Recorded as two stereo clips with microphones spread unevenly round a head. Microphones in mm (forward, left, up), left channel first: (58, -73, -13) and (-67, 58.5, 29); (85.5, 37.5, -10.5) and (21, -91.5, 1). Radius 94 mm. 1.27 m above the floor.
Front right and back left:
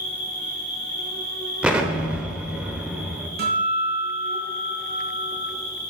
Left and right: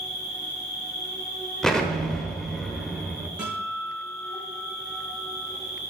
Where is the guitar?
160° left, 4 m.